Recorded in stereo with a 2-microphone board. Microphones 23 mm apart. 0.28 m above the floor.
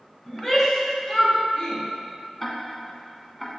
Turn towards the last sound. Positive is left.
turn(degrees=10)  # may be behind; listen again after turning